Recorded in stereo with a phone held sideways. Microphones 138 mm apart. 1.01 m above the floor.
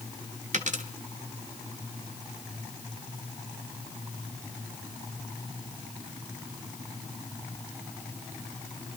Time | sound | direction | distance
0.5 | a dropped coin | 65° right (ahead or behind) | 1.3 m